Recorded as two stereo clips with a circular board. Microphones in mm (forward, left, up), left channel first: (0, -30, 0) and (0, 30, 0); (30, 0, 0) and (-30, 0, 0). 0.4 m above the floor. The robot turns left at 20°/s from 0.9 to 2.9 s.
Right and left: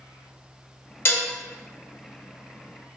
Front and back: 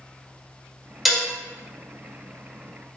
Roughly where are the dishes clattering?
Right.